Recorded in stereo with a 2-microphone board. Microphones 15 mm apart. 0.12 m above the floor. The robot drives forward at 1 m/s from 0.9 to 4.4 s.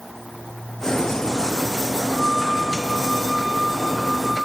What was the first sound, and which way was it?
A flute, 5° left (ahead or behind).